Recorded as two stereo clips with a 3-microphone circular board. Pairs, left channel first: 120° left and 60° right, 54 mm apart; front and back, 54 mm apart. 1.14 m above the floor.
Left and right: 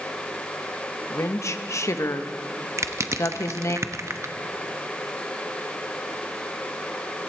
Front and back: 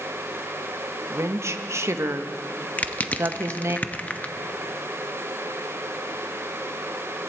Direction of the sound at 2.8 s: 60° right.